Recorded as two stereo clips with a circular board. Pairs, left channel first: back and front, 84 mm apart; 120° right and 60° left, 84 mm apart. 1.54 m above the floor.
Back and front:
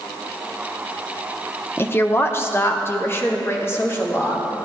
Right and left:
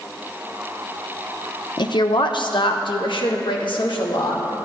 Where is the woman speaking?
120° right, 0.8 m.